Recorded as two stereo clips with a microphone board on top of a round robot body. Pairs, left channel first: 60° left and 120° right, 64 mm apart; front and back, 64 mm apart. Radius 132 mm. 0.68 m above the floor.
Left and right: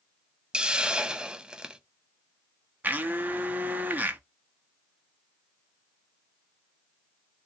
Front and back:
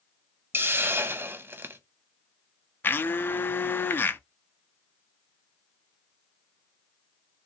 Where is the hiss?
175° left, 0.9 m.